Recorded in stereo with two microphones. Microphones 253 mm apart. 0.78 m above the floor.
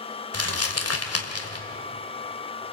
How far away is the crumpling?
About 2.5 m.